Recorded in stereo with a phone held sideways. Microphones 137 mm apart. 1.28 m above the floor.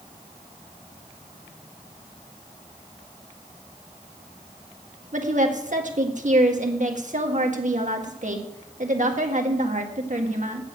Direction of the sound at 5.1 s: 55° right (ahead or behind).